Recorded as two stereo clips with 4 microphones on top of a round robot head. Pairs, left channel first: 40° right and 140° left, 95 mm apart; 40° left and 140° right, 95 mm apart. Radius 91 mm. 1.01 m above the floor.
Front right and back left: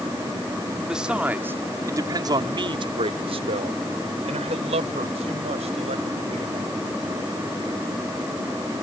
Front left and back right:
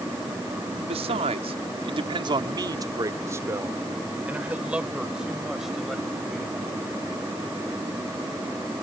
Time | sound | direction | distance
0.8 | a man speaking | 135° right | ?